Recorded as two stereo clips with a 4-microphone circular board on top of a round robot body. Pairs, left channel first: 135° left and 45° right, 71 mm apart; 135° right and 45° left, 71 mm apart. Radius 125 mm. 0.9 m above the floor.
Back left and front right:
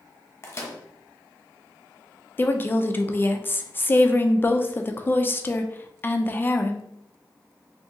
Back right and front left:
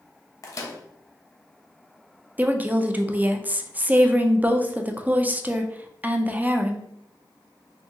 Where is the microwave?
175° right, 0.8 m.